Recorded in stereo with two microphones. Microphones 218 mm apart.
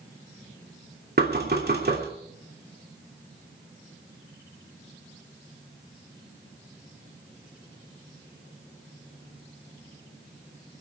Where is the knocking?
50° right (ahead or behind), 3 m.